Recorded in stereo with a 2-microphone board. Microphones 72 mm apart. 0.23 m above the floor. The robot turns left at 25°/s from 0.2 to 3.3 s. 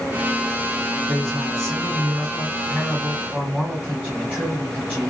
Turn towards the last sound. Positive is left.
turn(degrees=-155)